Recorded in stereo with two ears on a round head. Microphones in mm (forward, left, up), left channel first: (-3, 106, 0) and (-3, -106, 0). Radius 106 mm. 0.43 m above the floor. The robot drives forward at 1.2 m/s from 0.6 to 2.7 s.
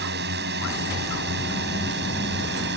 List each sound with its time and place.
0.0 s a drone: 45° right (ahead or behind); by 2.8 s 50° right (ahead or behind)